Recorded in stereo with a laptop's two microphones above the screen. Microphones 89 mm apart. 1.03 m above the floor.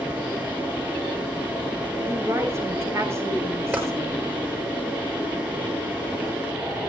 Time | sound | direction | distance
0.0 | a fan | 15° right (ahead or behind) | 9.5 m
2.1 | a woman speaking | 30° right (ahead or behind) | 7 m
3.7 | tapping | 20° right (ahead or behind) | 5.5 m